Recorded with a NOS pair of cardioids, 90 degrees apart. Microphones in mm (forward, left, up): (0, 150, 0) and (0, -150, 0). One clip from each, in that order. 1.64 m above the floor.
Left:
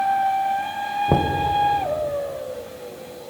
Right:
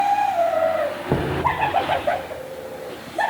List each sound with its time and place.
1.1 s knocking: 25° left, 1.8 m